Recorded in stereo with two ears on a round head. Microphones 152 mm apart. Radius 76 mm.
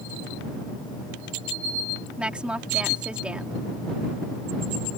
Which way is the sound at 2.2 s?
5° right (ahead or behind).